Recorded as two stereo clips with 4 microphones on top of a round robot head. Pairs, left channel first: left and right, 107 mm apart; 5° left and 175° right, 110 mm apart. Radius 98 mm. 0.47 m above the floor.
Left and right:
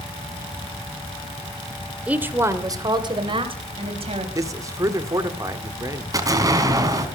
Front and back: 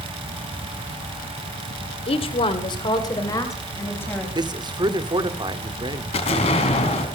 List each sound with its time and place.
2.1 s a woman speaking: 15° right, 2.5 m; by 4.2 s 70° right, 4 m
4.3 s a man speaking: 140° right, 1.9 m
6.1 s an explosion: 35° right, 3.5 m